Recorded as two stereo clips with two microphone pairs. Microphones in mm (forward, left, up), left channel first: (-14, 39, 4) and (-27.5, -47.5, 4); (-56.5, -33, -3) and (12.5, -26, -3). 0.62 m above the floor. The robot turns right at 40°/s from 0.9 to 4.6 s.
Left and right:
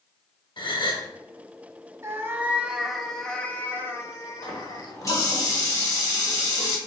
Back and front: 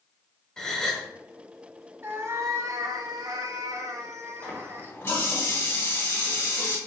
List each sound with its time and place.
0.6 s a gasp: 110° left, 0.9 m; by 1.1 s 115° left, 0.9 m
2.0 s a cat meowing: 50° right, 0.7 m; by 5.0 s 55° left, 0.7 m
4.4 s a running tap: 125° left, 1.7 m; by 6.8 s 135° left, 1.7 m